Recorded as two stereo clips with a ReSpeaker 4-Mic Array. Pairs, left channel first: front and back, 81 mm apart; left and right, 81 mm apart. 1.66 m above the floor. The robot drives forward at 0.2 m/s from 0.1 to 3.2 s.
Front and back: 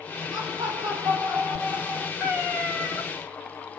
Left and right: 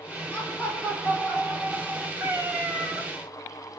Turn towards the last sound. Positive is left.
turn(degrees=-115)